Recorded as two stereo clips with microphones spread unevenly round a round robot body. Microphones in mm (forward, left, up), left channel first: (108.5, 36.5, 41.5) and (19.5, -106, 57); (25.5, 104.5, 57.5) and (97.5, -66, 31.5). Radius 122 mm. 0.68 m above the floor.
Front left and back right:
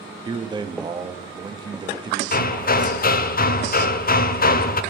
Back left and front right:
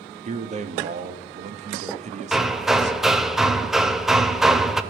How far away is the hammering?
About 0.7 m.